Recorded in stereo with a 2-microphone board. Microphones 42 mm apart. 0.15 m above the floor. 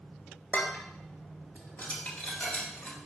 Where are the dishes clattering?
35° left (ahead or behind), 1.6 m.